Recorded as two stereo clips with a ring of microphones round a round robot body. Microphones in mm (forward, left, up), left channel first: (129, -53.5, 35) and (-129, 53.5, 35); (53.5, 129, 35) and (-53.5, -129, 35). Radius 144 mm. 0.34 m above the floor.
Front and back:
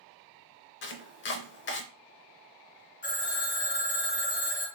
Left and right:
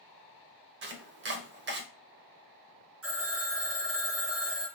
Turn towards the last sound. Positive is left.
turn(degrees=-75)